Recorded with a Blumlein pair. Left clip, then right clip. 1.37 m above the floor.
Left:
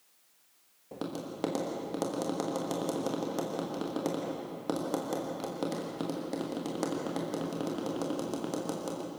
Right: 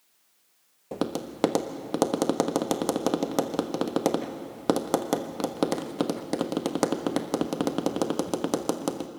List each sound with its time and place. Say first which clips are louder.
0.9 s tapping: right 7 dB; 60° right, 1.2 m